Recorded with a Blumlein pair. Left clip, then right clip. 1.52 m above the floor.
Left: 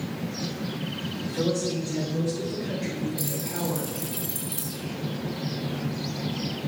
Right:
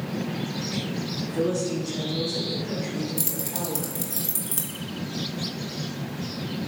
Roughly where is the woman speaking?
Ahead.